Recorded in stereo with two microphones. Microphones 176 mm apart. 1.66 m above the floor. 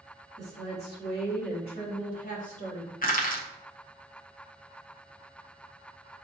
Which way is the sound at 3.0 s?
55° left (ahead or behind).